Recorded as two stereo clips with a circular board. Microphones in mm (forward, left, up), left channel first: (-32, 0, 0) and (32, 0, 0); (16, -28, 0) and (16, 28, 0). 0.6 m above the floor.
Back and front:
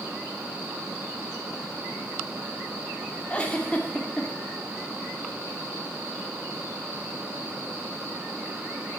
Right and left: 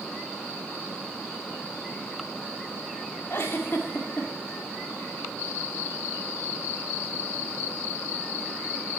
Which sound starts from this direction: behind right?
A giggle, at 3.3 s.